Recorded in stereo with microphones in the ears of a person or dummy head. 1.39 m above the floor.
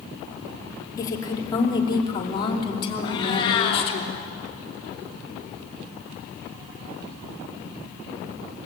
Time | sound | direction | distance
1.0 | a woman speaking | 20° left (ahead or behind) | 3.5 m
3.0 | a cat meowing | 25° left (ahead or behind) | 4 m